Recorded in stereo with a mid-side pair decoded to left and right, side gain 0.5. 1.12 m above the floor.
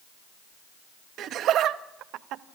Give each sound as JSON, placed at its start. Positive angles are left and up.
{"t": 1.2, "sound": "laughter", "azimuth_deg": -65, "distance_m": 1.6}